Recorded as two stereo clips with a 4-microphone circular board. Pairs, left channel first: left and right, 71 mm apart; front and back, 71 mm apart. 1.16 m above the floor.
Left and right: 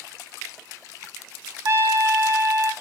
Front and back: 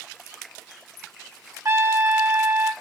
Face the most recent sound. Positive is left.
turn(degrees=-135)